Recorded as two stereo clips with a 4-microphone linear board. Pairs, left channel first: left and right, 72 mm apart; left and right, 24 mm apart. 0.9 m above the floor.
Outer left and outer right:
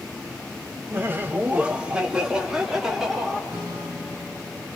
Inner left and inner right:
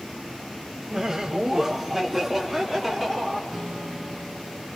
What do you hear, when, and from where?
0.9 s laughter: 30° right (ahead or behind), 0.7 m; by 3.4 s 5° right (ahead or behind), 2.5 m
3.5 s a guitar: 30° right (ahead or behind), 8.5 m